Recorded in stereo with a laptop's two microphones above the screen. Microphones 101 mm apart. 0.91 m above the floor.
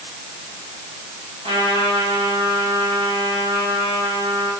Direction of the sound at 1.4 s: 85° right.